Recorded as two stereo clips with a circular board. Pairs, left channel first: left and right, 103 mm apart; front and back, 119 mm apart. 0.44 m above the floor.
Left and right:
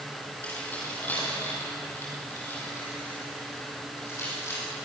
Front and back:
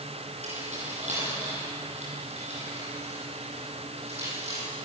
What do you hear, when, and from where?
0.4 s keys jangling: 165° left, 9.5 m; by 4.7 s 155° left, 13 m